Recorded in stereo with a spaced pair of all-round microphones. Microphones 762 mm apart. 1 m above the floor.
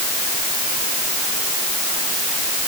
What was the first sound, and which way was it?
Only background noise.